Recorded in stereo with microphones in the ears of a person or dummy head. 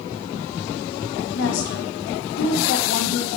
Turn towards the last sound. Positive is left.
turn(degrees=75)  # may be behind; listen again after turning